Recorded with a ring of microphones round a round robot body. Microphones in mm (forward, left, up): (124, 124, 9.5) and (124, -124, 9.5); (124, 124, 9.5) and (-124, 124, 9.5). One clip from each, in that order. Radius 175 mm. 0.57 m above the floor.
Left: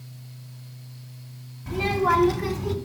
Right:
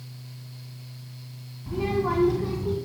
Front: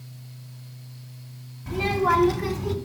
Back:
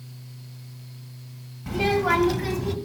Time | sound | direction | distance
1.7 | a child speaking | 135° left | 1.8 m